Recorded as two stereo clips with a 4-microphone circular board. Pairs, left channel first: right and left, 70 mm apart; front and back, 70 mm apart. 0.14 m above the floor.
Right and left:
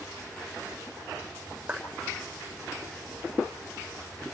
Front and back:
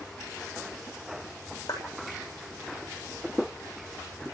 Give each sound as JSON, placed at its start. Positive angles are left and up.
{"t": 1.7, "sound": "a clap", "azimuth_deg": 15, "distance_m": 8.0}